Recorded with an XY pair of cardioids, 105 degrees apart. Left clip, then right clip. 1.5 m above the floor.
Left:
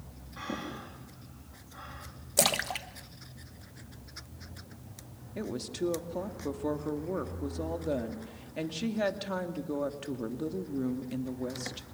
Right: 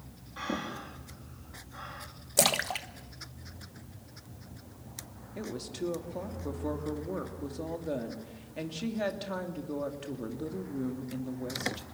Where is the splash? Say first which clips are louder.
Right 1 dB; 5° right, 1.4 m.